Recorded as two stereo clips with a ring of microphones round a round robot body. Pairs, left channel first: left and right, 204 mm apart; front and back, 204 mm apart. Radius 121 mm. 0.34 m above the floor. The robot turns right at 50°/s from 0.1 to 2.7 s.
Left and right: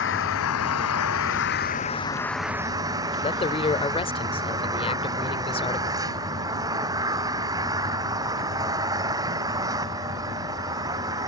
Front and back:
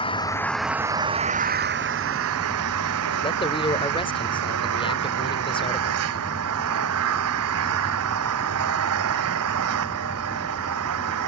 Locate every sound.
0.0 s an engine running: 65° left; by 11.3 s 165° right
3.2 s a man speaking: 45° left